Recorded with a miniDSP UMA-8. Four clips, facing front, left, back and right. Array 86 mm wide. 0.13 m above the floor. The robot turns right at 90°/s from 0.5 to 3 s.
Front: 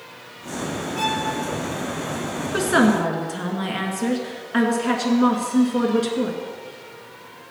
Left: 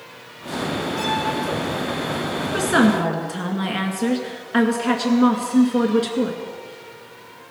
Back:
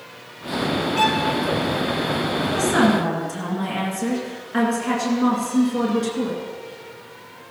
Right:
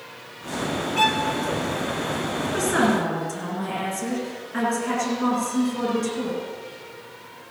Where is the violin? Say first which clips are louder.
Right 4 dB, back 4 dB; 120° right, 1.4 m; by 1.2 s 95° right, 1.4 m.